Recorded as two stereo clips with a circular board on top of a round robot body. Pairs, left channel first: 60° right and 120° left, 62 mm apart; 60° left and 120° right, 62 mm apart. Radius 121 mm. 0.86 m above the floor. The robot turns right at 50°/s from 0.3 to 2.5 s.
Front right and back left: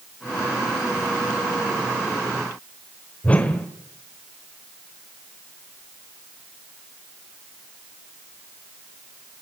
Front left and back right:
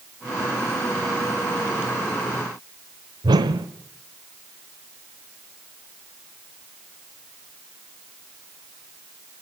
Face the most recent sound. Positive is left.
turn(degrees=-135)